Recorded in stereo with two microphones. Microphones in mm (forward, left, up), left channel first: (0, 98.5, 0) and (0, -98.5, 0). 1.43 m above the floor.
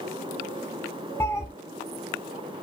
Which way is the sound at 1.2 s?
10° left (ahead or behind).